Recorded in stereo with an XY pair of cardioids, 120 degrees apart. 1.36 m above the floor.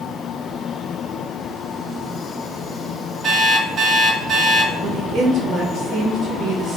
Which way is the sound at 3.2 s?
50° right.